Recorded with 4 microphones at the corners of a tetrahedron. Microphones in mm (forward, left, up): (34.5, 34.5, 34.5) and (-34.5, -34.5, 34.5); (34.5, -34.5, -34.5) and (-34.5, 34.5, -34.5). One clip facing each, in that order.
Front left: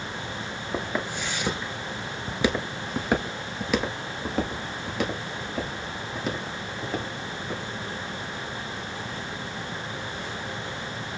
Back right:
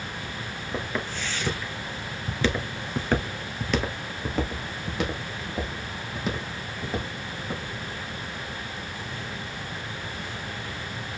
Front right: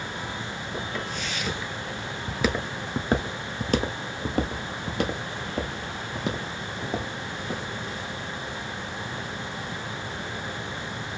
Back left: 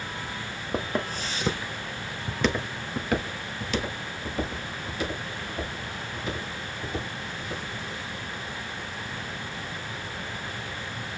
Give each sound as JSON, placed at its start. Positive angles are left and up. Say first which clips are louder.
{"t": 0.7, "sound": "footsteps", "louder": "front left 2 dB, back left 5 dB", "azimuth_deg": 115, "distance_m": 1.2}